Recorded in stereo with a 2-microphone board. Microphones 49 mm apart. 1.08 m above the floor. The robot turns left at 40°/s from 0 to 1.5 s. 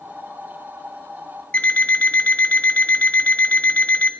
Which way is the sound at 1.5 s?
25° left (ahead or behind).